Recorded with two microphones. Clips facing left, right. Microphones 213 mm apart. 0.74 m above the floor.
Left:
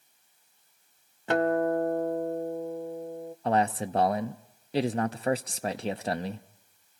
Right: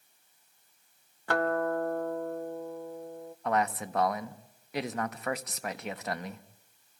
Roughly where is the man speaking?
Left.